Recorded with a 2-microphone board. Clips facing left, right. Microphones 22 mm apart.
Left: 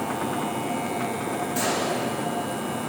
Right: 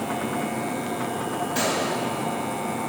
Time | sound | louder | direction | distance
1.6 | a gunshot | right 1 dB | 30° right (ahead or behind) | 4.5 m